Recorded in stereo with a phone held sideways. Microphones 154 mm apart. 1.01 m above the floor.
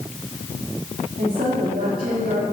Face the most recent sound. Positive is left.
turn(degrees=-70)  # may be behind; listen again after turning